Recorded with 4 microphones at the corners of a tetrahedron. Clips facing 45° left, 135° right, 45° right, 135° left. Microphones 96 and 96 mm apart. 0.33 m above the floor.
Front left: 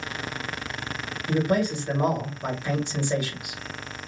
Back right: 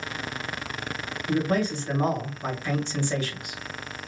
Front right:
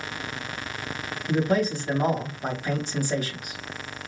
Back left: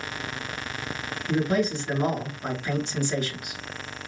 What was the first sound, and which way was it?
A man speaking, 25° right.